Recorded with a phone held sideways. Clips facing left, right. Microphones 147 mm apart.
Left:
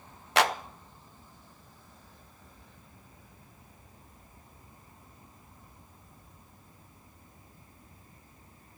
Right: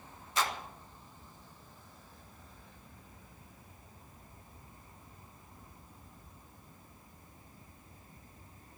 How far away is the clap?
About 0.7 m.